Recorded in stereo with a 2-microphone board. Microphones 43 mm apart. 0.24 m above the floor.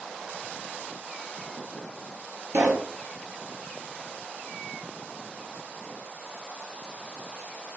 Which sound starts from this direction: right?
A pop, at 2.5 s.